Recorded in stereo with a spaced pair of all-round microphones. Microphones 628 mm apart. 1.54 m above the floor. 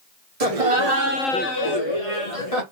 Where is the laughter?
65° right (ahead or behind), 1.1 m; by 2.6 s 60° left (ahead or behind), 1.8 m.